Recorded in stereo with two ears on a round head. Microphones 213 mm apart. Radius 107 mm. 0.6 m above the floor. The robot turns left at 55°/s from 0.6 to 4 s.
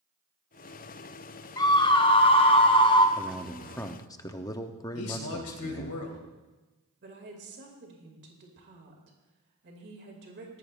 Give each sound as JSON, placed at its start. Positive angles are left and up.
{"t": 1.6, "sound": "a scream", "side_deg": 15, "distance_m": 0.8}
{"t": 3.2, "sound": "a man speaking", "azimuth_deg": -165, "distance_m": 0.9}
{"t": 5.0, "sound": "a man speaking", "side_deg": 70, "distance_m": 2.5}
{"t": 7.0, "sound": "a woman speaking", "side_deg": -50, "distance_m": 2.5}